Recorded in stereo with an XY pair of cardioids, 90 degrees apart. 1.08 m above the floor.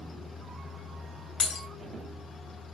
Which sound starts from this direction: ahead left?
Breaking glass, at 1.4 s.